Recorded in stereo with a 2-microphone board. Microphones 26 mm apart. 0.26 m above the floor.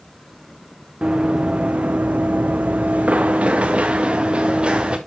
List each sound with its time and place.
1.0 s running footsteps: 45° right (ahead or behind), 1.2 m; by 5.0 s 35° right (ahead or behind), 2 m